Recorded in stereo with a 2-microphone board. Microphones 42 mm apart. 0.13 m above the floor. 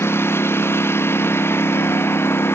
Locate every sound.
0.0 s a lawn mower: 70° left (ahead or behind)